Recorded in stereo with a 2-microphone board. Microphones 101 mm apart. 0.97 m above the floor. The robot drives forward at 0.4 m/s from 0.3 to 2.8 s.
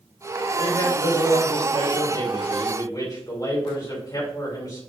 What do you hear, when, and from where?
0.6 s a man speaking: 50° left (ahead or behind), 4 m; by 4.8 s 40° left (ahead or behind), 4.5 m